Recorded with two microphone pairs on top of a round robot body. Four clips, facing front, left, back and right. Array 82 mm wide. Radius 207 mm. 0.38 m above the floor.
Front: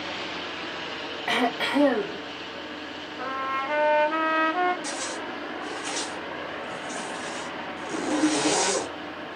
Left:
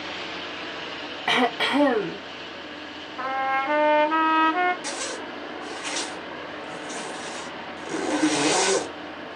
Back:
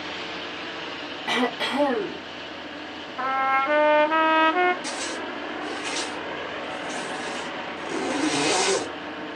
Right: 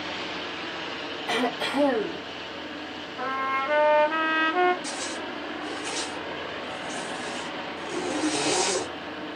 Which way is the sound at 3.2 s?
160° left.